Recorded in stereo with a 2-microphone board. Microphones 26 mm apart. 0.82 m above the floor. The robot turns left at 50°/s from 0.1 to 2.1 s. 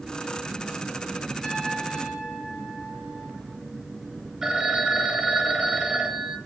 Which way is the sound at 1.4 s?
5° left.